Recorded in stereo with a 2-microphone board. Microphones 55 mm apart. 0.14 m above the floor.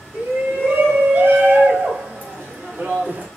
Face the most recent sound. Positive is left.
turn(degrees=-30)  # may be behind; listen again after turning